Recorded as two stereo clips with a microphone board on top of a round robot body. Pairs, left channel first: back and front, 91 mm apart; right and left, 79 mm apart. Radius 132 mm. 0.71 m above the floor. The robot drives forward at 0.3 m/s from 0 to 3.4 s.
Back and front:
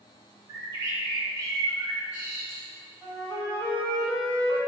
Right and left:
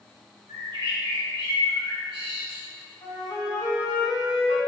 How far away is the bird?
About 1.3 m.